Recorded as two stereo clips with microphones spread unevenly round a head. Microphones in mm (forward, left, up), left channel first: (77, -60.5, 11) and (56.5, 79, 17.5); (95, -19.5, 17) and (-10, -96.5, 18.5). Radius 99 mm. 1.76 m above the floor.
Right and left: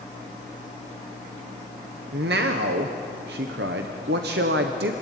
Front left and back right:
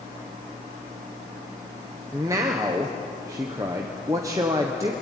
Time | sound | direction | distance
2.1 | a man speaking | 140° left | 1.2 m